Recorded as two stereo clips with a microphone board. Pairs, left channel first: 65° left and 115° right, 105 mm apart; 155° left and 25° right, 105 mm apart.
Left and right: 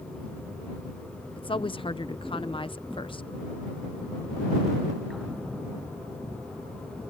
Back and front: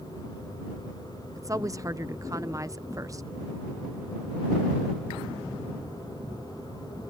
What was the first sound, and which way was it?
A woman speaking, 35° left.